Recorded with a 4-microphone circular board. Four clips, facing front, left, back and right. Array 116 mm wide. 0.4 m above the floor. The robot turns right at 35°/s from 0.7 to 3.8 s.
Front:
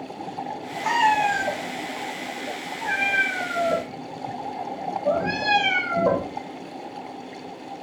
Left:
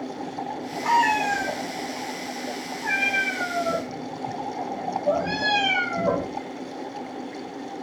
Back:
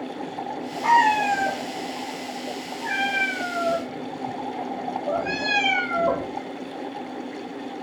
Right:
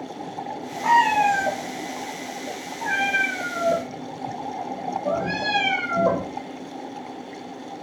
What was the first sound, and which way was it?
A cat meowing, 140° right.